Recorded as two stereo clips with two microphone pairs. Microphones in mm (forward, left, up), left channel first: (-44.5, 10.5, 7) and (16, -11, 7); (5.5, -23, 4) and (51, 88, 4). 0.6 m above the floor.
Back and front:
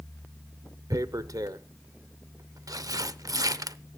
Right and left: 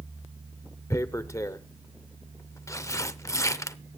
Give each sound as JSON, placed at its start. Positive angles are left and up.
{"t": 0.9, "sound": "tearing paper", "azimuth_deg": -45, "distance_m": 0.6}